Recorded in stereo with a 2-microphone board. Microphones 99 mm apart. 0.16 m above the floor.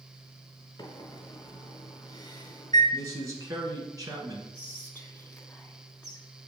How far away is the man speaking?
About 1.4 m.